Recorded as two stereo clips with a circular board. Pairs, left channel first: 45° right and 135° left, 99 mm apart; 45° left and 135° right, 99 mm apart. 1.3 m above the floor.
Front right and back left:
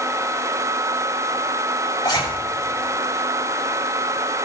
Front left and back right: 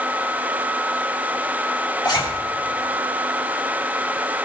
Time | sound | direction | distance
2.0 | a zipper | straight ahead | 4 m